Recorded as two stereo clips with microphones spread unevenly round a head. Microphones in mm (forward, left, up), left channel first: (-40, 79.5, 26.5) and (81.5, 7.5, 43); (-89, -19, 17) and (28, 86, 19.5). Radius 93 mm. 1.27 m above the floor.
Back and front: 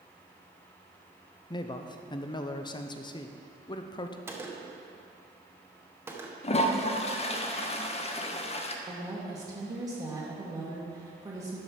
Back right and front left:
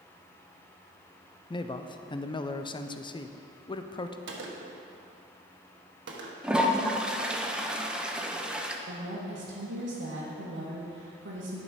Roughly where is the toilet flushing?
Behind left.